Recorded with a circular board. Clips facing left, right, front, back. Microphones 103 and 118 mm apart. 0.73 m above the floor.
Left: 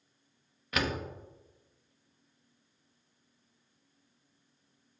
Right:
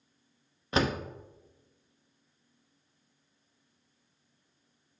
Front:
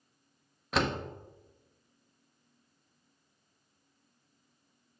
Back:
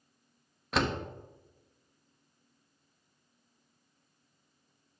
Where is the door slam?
90° right, 0.6 m.